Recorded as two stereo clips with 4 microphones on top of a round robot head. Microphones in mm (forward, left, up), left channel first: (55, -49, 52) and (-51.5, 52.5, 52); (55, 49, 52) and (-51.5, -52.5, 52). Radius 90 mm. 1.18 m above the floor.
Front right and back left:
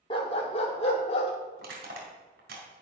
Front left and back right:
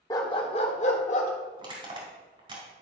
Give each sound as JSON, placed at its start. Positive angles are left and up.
{"t": 0.1, "sound": "a dog barking", "azimuth_deg": -10, "distance_m": 0.8}
{"t": 1.6, "sound": "crushing", "azimuth_deg": 165, "distance_m": 3.0}